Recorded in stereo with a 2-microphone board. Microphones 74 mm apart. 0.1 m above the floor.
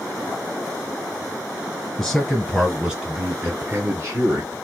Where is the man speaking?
10° left (ahead or behind), 1.6 m; by 4.6 s 40° right (ahead or behind), 1.9 m.